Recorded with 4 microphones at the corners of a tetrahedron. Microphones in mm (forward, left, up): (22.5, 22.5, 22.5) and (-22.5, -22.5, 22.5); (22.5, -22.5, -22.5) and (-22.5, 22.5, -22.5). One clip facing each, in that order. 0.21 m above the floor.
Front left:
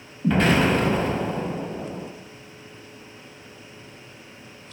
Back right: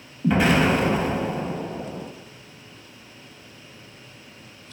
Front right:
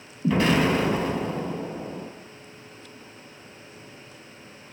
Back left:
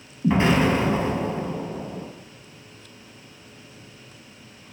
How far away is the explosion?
About 0.6 m.